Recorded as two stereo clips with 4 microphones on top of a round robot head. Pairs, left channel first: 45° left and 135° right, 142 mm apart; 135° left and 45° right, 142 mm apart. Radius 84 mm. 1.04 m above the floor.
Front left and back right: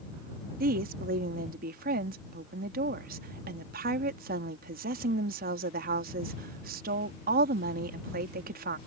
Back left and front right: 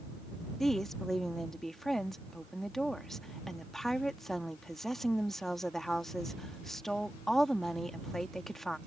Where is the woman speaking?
140° right.